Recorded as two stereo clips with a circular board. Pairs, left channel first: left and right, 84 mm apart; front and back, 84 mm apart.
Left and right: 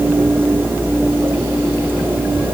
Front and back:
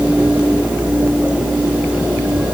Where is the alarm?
No alarm in this recording.